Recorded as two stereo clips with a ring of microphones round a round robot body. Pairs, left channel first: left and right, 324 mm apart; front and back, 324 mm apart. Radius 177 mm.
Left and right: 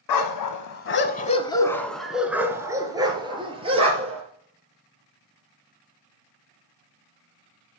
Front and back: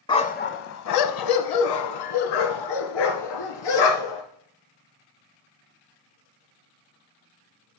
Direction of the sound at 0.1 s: 75° left.